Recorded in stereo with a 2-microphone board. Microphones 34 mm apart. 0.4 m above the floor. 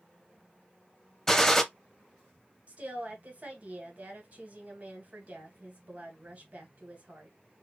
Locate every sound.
1.3 s a gunshot: 15° left (ahead or behind), 0.5 m
2.7 s a woman speaking: 40° right (ahead or behind), 1.3 m